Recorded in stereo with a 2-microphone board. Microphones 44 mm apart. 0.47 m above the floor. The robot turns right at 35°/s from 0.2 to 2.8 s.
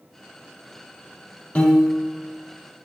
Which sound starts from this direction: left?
A piano, at 1.6 s.